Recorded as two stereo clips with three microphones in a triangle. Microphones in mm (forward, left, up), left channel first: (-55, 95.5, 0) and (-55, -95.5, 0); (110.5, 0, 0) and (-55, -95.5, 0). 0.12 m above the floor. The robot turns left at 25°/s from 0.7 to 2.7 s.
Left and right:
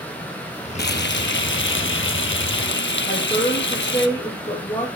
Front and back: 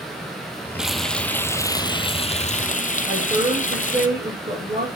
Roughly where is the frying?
Behind left.